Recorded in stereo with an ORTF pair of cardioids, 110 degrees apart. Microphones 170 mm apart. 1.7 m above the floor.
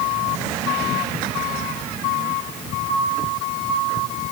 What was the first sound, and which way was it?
Only background noise.